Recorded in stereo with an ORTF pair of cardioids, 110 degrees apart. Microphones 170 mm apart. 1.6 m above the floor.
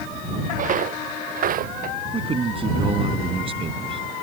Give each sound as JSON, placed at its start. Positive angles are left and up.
{"t": 0.6, "sound": "footsteps", "azimuth_deg": -50}
{"t": 2.1, "sound": "a man speaking", "azimuth_deg": -35}